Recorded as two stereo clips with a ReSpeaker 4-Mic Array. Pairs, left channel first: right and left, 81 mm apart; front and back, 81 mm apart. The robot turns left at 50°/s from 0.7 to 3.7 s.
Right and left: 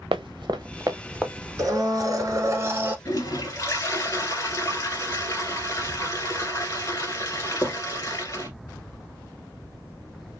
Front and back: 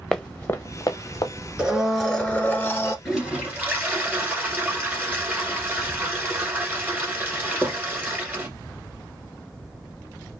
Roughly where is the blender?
Left.